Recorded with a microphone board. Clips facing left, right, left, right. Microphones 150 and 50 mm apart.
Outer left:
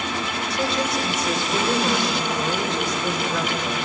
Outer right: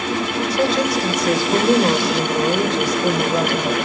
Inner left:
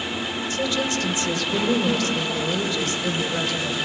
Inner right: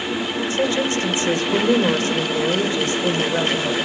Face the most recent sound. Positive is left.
turn(degrees=-35)  # may be behind; listen again after turning